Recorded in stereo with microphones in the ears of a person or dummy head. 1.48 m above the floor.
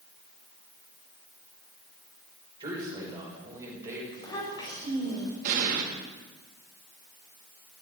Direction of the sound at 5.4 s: 50° right (ahead or behind).